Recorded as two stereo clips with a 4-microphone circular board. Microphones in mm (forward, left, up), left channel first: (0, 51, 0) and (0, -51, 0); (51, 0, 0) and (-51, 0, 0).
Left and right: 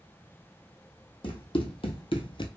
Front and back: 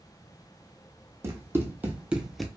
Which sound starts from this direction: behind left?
Running footsteps, at 1.2 s.